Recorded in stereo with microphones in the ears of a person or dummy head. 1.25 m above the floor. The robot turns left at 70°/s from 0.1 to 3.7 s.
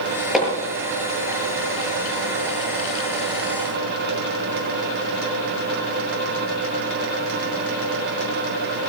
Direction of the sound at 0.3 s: Centre (ahead or behind).